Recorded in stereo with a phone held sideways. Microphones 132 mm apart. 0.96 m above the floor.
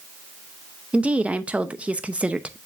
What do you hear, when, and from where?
0.9 s a woman speaking: 10° right (ahead or behind), 0.7 m